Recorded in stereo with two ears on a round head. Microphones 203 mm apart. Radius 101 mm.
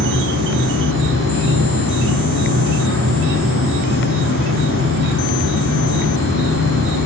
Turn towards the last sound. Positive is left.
turn(degrees=-55)  # may be behind; listen again after turning